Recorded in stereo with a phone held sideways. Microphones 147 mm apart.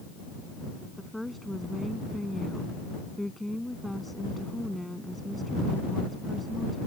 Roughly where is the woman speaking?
Centre.